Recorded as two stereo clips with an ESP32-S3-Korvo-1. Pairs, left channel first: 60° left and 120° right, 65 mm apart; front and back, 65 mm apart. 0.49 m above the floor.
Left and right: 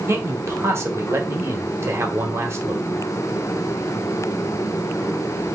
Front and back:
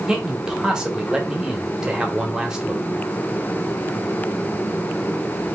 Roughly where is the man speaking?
Right.